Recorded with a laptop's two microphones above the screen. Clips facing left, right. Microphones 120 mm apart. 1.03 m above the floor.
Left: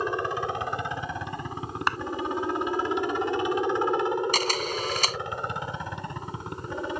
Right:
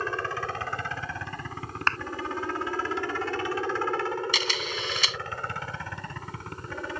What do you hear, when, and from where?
0.0 s a helicopter: 15° left (ahead or behind); by 7.0 s 20° left (ahead or behind)
1.9 s a clap: 10° left (ahead or behind)
4.3 s a camera shutter: 40° left (ahead or behind)